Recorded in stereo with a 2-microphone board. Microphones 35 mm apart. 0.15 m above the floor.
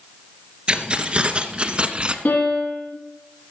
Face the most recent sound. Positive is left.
turn(degrees=60)  # may be behind; listen again after turning